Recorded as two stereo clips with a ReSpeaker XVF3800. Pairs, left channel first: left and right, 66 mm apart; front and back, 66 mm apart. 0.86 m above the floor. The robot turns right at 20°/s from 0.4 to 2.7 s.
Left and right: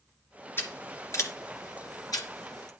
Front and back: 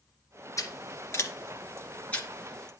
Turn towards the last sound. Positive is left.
turn(degrees=80)